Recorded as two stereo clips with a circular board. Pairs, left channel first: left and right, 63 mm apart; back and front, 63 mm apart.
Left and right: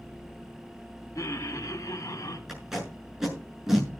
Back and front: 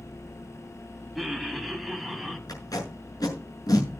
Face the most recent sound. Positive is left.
turn(degrees=-175)